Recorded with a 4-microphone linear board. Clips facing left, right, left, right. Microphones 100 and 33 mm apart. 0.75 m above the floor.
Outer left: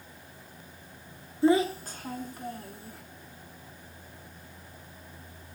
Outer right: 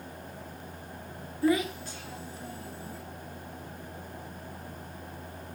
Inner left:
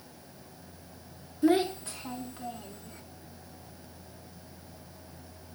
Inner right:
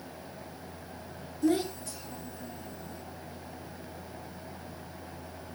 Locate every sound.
1.4 s a child speaking: 25° left (ahead or behind), 0.5 m; by 3.0 s 60° left (ahead or behind), 1.5 m